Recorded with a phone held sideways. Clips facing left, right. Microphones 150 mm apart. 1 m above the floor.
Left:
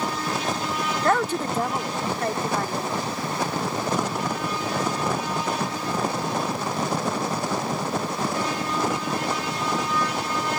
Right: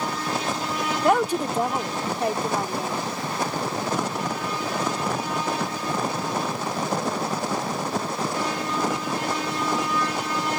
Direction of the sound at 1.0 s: 15° right (ahead or behind).